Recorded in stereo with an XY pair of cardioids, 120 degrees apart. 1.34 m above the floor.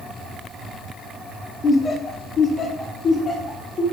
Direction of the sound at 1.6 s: 30° left.